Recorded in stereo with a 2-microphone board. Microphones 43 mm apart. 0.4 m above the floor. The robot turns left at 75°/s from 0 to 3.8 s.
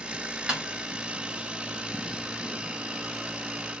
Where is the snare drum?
15° right (ahead or behind), 1.6 m; by 0.7 s 5° right (ahead or behind), 1.6 m.